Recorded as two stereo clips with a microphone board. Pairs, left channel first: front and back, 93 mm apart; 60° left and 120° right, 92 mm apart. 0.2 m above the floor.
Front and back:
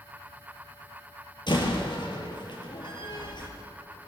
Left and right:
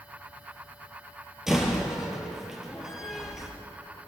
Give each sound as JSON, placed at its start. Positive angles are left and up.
{"t": 1.5, "sound": "a door slam", "azimuth_deg": -35, "distance_m": 3.5}